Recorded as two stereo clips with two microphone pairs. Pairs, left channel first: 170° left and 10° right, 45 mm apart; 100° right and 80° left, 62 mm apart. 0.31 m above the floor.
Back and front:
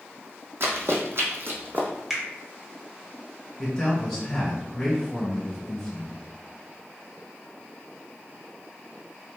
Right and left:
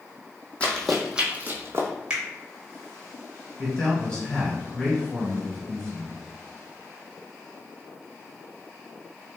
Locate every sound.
0.6 s running footsteps: 30° right, 0.8 m; by 1.9 s 40° left, 1.0 m
2.1 s a finger snap: 55° left, 1.0 m
3.6 s a man speaking: 130° right, 1.5 m